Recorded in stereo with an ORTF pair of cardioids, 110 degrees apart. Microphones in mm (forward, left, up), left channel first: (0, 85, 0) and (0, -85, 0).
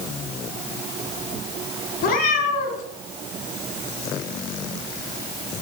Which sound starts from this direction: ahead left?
A cat meowing, at 2.0 s.